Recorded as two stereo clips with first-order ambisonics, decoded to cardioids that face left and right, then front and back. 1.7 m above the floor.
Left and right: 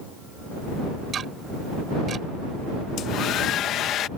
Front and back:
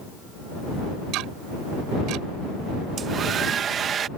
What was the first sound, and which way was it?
Ticking, 155° right.